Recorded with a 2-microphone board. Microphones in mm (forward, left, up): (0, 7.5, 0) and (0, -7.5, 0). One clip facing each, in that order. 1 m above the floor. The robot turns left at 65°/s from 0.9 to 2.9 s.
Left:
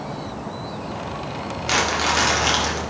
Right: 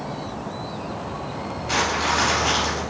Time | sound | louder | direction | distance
1.7 | crumpling | left 2 dB | 90° left | 1.6 m